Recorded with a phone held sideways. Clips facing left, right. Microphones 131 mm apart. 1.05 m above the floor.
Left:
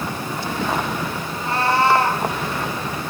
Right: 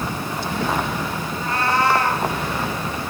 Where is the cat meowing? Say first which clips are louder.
Left 2 dB; 30° left (ahead or behind), 3.5 m.